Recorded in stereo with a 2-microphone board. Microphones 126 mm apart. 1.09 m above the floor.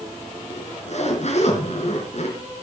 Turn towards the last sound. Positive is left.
turn(degrees=60)  # may be behind; listen again after turning